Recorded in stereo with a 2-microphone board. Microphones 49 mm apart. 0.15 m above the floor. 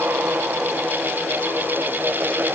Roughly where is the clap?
No clap in this recording.